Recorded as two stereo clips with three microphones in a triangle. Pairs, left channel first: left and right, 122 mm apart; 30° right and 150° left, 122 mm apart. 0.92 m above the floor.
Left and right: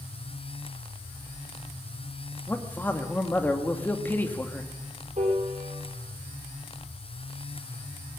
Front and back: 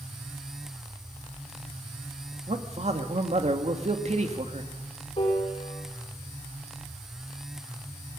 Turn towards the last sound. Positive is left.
turn(degrees=-65)